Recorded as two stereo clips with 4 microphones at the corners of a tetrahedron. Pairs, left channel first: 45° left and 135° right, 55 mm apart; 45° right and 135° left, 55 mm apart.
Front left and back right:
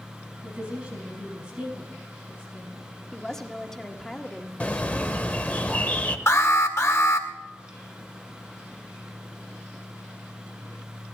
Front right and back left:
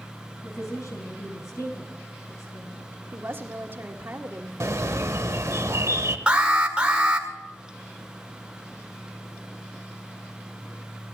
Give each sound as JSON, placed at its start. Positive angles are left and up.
{"t": 0.4, "sound": "a woman speaking", "azimuth_deg": -60, "distance_m": 4.5}
{"t": 3.1, "sound": "a woman speaking", "azimuth_deg": 120, "distance_m": 1.4}
{"t": 4.6, "sound": "a bird", "azimuth_deg": 110, "distance_m": 0.9}
{"t": 6.3, "sound": "an alarm", "azimuth_deg": 70, "distance_m": 1.7}